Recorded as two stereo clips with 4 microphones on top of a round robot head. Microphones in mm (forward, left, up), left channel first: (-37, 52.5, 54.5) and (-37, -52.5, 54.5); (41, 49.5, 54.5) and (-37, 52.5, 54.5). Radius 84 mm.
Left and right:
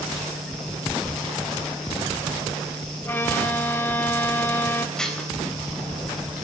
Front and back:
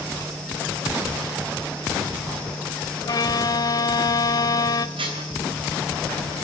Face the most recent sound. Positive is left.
turn(degrees=175)